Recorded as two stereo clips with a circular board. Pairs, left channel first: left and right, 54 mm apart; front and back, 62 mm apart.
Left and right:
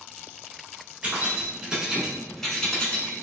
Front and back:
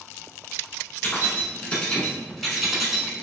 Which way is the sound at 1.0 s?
45° right.